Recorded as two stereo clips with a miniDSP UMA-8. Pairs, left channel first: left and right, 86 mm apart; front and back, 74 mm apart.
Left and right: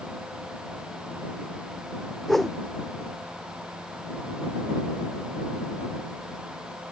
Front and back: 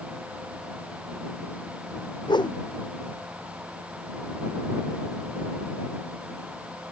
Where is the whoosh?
Straight ahead.